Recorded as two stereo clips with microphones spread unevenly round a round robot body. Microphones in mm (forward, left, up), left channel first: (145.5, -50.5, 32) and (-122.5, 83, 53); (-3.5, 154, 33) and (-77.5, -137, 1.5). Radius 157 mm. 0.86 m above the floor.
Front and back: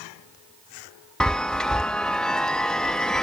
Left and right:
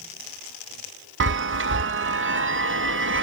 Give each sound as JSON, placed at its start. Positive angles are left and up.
{"t": 1.2, "sound": "a chime", "azimuth_deg": -110}